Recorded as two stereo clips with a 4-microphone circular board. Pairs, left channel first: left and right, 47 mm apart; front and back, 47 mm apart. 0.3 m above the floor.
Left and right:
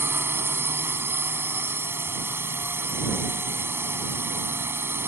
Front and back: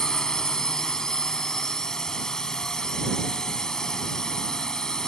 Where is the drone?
75° right.